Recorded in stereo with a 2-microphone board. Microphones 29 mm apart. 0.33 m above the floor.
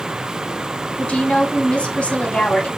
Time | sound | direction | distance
1.0 | a woman speaking | 40° left (ahead or behind) | 2.5 m